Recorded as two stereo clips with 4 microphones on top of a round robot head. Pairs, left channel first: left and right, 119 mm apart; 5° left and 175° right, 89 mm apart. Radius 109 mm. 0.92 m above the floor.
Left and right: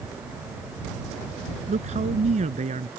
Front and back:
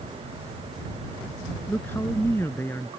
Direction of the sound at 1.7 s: 65° right.